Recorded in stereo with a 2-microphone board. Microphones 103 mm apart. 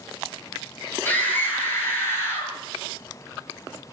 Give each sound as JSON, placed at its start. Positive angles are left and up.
{"t": 1.1, "sound": "a scream", "side_deg": 20, "distance_m": 9.5}